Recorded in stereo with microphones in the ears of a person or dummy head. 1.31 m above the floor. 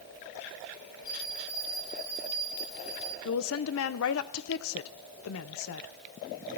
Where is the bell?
75° left (ahead or behind), 5 m.